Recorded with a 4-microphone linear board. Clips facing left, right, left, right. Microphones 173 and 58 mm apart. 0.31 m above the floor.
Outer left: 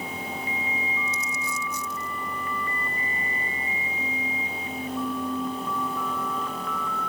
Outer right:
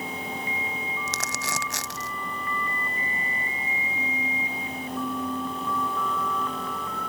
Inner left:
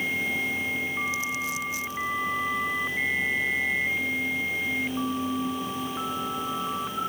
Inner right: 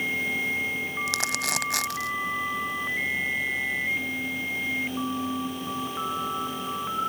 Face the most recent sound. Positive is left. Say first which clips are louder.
# outer right 1 dB, inner right 1 dB
turn(degrees=-80)